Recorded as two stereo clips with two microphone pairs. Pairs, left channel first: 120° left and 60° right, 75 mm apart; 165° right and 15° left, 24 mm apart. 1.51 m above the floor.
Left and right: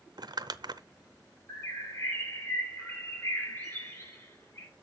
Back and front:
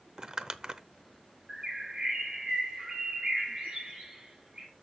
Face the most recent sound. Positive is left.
turn(degrees=60)